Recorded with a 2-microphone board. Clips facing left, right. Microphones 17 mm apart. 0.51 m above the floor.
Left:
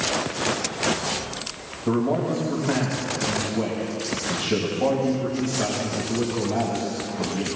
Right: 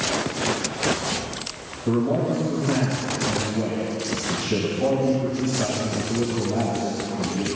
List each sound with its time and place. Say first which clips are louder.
1.9 s a man speaking: right 1 dB; 35° left (ahead or behind), 2.5 m